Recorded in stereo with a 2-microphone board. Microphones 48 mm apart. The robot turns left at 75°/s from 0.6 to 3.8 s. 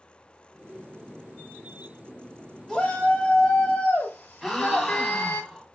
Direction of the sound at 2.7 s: 5° left (ahead or behind).